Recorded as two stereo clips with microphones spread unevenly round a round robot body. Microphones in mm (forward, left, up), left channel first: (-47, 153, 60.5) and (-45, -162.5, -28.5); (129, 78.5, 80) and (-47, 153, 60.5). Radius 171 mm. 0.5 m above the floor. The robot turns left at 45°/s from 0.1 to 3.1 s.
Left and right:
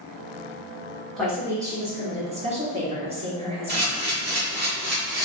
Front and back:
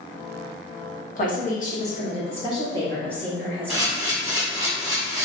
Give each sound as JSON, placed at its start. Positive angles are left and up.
{"t": 1.1, "sound": "a woman speaking", "azimuth_deg": -20, "distance_m": 1.0}
{"t": 3.7, "sound": "a camera shutter", "azimuth_deg": -130, "distance_m": 1.9}